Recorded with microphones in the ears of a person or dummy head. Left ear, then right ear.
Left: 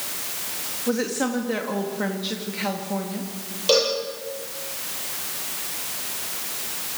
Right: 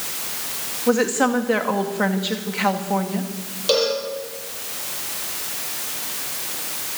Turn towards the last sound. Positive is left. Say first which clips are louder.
# even
turn(degrees=10)  # may be behind; listen again after turning